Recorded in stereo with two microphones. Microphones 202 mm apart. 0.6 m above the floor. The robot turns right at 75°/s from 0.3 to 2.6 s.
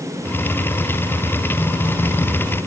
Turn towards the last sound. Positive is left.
No sound to turn to.